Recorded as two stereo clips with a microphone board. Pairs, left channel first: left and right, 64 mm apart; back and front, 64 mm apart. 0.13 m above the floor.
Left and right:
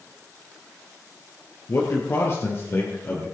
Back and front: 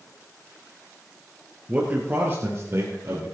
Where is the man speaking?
60° left, 2 m; by 3.2 s 40° left, 3.5 m.